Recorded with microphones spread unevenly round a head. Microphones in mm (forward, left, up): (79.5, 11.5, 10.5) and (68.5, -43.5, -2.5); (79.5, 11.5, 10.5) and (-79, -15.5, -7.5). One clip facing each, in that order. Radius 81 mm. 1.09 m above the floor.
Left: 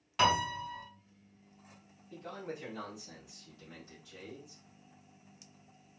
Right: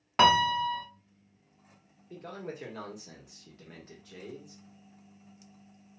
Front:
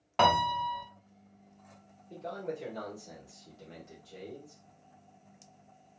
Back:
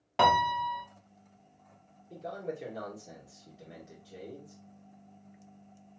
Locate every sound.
0.2 s a piano: 90° right, 0.8 m
2.1 s a man speaking: 95° right, 1.8 m